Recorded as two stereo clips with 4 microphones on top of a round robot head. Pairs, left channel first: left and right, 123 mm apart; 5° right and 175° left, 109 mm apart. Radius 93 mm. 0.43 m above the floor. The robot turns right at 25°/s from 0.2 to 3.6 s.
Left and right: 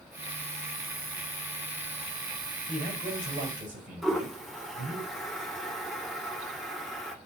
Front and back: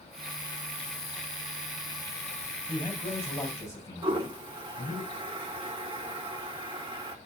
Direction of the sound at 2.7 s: 95° right.